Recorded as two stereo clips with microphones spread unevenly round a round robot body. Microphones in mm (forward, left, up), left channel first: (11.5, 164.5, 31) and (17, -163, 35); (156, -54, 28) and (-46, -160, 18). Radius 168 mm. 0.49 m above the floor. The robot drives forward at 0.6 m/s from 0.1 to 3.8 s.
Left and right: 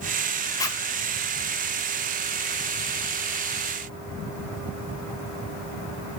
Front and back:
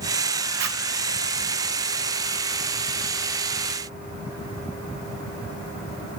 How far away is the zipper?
About 1.7 m.